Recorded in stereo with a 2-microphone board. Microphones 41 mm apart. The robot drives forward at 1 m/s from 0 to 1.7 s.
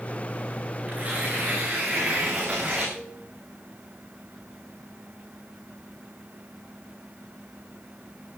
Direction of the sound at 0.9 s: 35° right (ahead or behind).